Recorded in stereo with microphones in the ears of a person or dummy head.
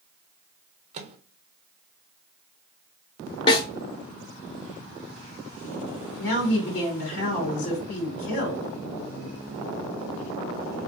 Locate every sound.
0.9 s a microwave: 40° right (ahead or behind), 0.5 m
3.5 s a snare drum: 25° left (ahead or behind), 0.9 m
6.2 s a woman speaking: 70° left (ahead or behind), 1.5 m